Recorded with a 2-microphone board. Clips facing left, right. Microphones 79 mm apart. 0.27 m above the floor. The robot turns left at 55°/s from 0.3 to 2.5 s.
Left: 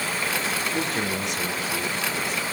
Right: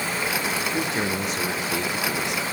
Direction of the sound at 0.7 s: 10° right.